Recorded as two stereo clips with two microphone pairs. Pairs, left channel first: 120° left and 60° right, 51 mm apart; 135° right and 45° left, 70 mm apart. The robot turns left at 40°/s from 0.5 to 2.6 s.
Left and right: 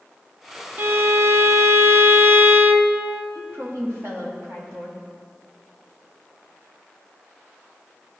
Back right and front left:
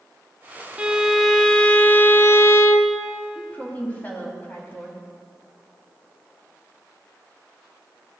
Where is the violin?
30° right, 0.6 m; by 3.0 s 100° right, 0.6 m.